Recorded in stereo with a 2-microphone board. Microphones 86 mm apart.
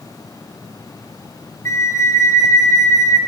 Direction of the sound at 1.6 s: 35° left (ahead or behind).